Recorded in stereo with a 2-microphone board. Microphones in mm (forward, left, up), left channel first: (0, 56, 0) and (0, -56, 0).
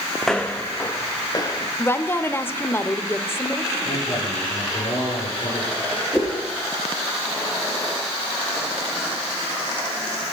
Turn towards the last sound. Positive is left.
turn(degrees=10)  # may be behind; listen again after turning